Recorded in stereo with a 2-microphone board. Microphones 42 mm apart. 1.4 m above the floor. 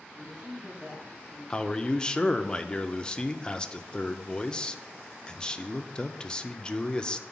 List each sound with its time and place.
0.1 s a man speaking: 30° right (ahead or behind), 3 m
1.5 s a man speaking: 20° left (ahead or behind), 0.5 m